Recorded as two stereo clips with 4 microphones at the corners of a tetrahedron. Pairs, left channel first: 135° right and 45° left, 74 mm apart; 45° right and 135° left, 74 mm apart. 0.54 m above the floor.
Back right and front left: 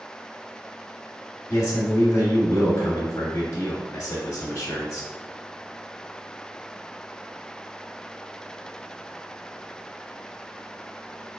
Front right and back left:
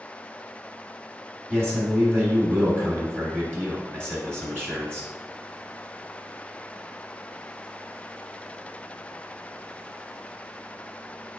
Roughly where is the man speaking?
Behind.